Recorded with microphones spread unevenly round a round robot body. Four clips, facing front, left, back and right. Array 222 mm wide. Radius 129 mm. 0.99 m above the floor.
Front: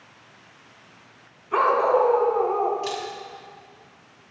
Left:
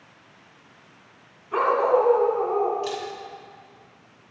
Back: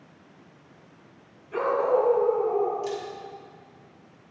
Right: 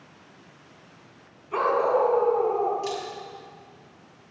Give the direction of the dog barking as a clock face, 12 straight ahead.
12 o'clock.